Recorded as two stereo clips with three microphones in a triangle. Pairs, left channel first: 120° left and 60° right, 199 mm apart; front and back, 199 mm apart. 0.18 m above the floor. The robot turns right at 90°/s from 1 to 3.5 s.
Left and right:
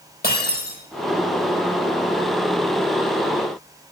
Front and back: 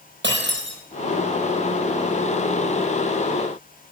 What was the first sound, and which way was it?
Breaking glass, 155° left.